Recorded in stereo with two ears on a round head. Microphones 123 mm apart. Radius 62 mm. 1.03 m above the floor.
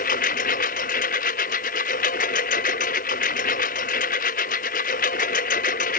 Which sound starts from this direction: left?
A lawn mower, at 0.0 s.